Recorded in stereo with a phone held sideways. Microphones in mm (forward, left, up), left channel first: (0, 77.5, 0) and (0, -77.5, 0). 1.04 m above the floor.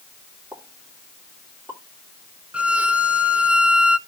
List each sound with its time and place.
0.5 s a pop: 20° right (ahead or behind), 3 m
2.5 s a violin: 10° right (ahead or behind), 0.8 m